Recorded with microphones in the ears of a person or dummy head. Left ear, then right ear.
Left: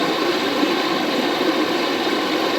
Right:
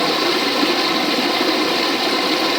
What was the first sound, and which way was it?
Running water, 20° right (ahead or behind).